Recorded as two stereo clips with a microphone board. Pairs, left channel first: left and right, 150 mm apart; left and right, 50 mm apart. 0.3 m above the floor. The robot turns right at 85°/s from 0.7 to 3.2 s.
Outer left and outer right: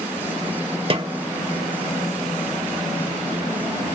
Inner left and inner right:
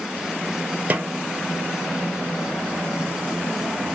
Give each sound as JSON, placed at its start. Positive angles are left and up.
{"t": 0.9, "sound": "a snare drum", "side_deg": -35, "distance_m": 0.6}